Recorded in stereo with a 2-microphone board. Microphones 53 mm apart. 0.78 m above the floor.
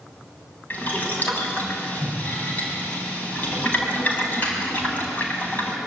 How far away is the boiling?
About 5 m.